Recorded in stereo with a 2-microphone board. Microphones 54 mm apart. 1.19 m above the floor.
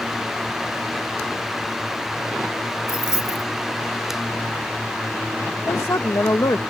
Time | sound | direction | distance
2.9 | keys jangling | 65° left (ahead or behind) | ?
5.7 | a woman speaking | 75° left (ahead or behind) | ?